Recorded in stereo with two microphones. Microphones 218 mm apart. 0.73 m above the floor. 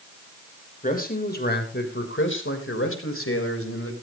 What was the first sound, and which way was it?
A man speaking, 40° left (ahead or behind).